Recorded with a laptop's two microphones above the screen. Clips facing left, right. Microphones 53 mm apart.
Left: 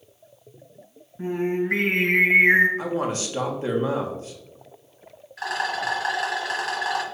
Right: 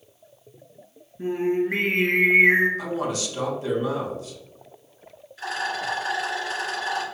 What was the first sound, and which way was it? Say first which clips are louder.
Singing: right 1 dB; 65° left (ahead or behind).